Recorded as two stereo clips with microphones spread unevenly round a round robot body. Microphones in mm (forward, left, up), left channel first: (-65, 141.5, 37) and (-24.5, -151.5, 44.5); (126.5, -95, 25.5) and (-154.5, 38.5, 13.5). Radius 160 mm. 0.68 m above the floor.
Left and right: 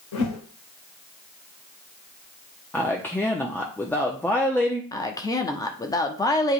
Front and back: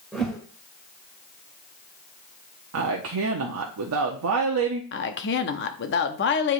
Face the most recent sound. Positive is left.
turn(degrees=25)